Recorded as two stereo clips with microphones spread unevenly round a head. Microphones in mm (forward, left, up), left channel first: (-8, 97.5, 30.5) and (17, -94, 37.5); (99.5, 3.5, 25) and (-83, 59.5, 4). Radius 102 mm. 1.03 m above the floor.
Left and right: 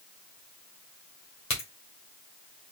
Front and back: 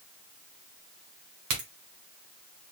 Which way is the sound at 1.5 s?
160° left.